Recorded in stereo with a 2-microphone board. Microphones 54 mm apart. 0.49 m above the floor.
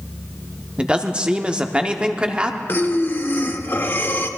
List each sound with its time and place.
0.8 s a man speaking: 20° right (ahead or behind), 0.8 m
2.7 s breathing: 45° left (ahead or behind), 0.9 m